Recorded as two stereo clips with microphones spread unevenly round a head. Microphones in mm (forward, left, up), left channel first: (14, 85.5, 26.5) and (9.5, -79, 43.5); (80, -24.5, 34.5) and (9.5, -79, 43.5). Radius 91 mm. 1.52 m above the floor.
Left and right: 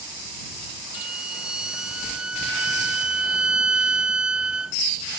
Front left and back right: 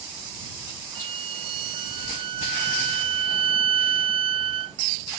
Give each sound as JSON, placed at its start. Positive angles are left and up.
{"t": 0.9, "sound": "a violin", "azimuth_deg": 180}